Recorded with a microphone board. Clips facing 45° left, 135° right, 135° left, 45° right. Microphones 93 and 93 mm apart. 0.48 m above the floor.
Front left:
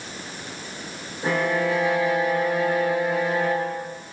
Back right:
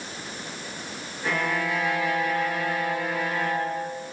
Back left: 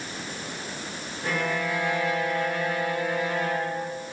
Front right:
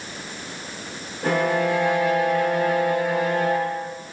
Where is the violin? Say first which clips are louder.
Front left 4 dB, front right 7 dB; 15° right, 3 m.